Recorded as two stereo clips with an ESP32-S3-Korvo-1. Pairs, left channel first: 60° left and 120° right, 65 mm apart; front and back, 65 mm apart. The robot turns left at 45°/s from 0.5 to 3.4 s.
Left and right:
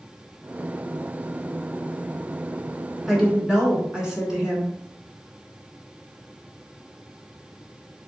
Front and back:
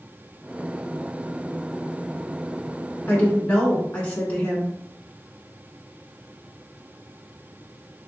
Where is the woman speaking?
35° right, 1.4 m; by 4.7 s 50° right, 1.4 m.